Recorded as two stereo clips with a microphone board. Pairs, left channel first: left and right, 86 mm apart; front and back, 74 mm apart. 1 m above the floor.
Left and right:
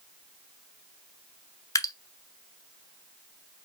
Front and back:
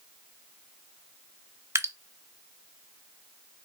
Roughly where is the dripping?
Behind left.